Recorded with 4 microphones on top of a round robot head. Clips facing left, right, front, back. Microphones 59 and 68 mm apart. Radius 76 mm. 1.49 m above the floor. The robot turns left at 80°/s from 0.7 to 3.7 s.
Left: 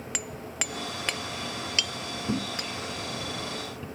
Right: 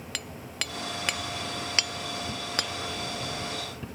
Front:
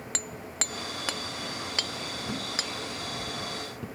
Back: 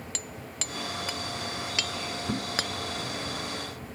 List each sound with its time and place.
0.1 s hammering: 25° left; by 2.7 s 135° right
2.3 s a thud: 105° left; by 3.9 s 10° right